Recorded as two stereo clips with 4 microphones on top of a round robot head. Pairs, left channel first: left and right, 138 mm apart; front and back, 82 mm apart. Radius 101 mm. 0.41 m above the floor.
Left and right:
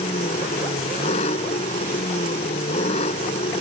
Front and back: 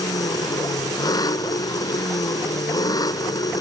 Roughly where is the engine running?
Ahead left.